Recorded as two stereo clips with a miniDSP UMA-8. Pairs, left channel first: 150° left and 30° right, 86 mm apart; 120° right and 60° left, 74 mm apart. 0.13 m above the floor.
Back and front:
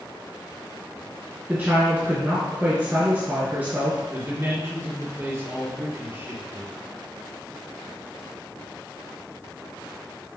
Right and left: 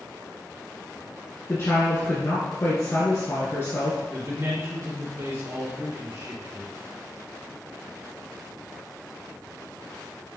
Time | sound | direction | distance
1.5 | a woman speaking | 90° right | 1.6 m
4.1 | a man speaking | 20° left | 3 m